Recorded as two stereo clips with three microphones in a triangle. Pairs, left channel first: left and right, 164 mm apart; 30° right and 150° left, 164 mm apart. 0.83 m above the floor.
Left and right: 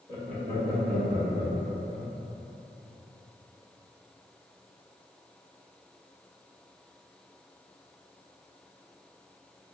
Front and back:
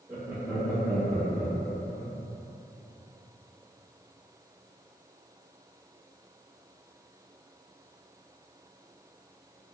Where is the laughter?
125° right, 1.7 m; by 2.1 s 70° right, 0.9 m.